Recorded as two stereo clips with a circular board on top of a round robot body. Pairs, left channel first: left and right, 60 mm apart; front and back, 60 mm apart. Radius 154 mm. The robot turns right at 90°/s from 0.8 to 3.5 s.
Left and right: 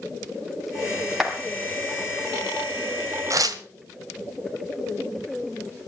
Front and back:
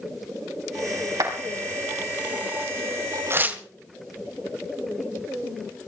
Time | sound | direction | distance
1.2 | a clap | 175° right | 5.5 m
3.3 | tearing paper | 130° right | 1.6 m